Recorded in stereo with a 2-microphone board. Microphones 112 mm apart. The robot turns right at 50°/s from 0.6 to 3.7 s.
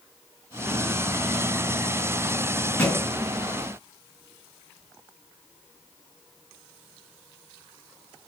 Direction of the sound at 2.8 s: 15° left (ahead or behind).